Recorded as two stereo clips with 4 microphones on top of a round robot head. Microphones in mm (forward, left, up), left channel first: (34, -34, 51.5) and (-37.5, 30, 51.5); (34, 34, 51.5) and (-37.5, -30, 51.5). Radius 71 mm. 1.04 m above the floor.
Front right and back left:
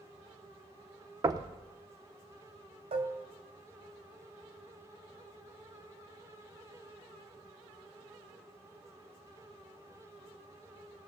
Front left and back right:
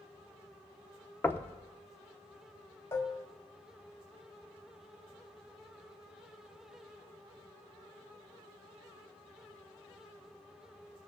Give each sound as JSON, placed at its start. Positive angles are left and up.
{"t": 1.2, "sound": "knocking", "azimuth_deg": 105, "distance_m": 0.7}
{"t": 2.9, "sound": "dishes clattering", "azimuth_deg": 110, "distance_m": 0.9}